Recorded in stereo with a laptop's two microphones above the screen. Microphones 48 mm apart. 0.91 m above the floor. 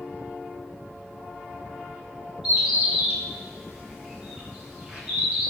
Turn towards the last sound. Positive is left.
turn(degrees=-20)  # may be behind; listen again after turning